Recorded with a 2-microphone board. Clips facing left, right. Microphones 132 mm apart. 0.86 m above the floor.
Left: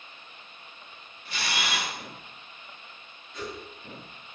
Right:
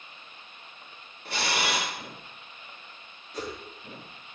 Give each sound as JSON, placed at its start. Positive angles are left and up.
{"t": 1.2, "sound": "a camera shutter", "side_deg": -70, "distance_m": 2.0}
{"t": 3.3, "sound": "a whoosh", "side_deg": -35, "distance_m": 1.4}